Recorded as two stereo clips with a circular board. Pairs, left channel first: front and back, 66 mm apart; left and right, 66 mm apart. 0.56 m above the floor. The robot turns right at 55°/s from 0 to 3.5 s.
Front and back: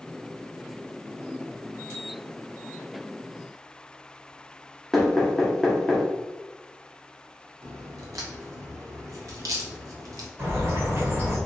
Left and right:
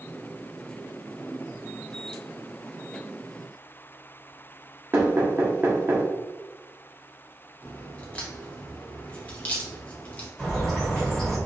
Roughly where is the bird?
Behind.